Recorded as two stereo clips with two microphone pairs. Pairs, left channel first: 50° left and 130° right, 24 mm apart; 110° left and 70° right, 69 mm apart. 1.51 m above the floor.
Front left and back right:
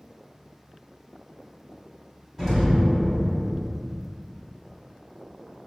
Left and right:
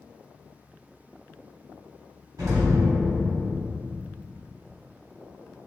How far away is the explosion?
About 1.1 m.